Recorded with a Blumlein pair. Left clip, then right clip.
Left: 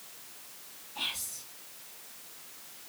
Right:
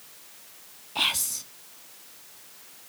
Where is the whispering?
35° right, 0.6 m.